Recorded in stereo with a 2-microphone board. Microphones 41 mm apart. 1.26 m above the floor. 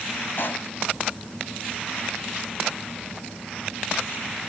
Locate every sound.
0.4 s a pop: 55° left (ahead or behind)